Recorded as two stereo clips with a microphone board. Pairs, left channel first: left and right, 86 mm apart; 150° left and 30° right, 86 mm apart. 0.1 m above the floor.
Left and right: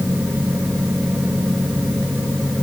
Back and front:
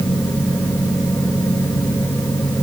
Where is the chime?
No chime in this recording.